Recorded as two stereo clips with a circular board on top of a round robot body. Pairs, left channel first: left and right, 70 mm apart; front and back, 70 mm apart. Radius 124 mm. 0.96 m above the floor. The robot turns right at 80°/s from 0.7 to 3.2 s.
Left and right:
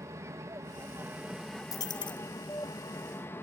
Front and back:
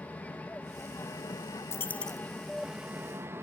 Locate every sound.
0.0 s an aircraft: 65° right; by 3.4 s 135° left
1.7 s a dropped coin: 50° left; by 2.2 s 90° left